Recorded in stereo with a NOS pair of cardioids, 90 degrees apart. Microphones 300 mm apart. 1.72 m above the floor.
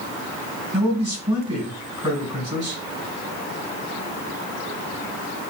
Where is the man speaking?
15° right, 1.5 m.